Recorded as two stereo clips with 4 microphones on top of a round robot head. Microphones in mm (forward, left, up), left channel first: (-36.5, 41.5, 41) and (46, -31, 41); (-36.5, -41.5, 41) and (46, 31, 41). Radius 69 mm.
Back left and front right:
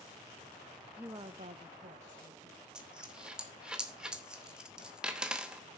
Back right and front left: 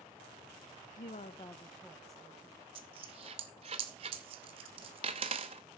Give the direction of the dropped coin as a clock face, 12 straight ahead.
11 o'clock.